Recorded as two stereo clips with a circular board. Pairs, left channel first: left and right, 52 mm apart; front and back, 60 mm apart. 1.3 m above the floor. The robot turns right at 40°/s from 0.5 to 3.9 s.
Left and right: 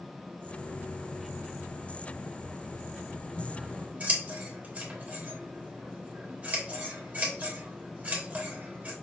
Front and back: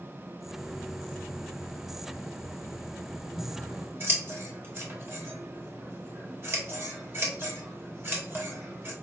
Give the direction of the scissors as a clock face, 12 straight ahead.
5 o'clock.